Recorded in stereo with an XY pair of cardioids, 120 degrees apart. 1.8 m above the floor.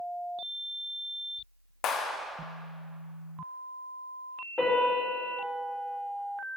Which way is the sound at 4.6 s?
20° left.